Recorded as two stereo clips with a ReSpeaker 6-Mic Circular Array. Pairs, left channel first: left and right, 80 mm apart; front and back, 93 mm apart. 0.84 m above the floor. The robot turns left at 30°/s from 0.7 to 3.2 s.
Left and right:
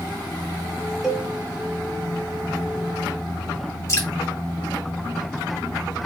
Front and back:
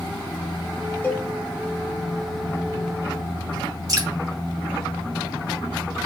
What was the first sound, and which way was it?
A cowbell, 10° right.